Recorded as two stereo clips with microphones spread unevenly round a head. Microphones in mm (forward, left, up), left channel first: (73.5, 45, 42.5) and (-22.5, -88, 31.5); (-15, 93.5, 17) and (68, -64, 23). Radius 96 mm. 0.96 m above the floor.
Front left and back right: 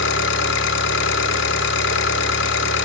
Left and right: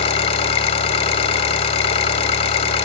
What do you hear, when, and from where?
0.0 s an engine running: 60° left, 1.8 m